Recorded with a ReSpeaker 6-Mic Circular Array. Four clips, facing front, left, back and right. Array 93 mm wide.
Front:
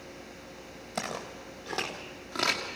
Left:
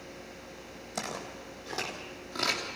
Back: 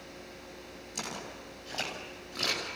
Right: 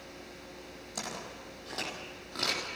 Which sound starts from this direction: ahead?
Footsteps, at 0.9 s.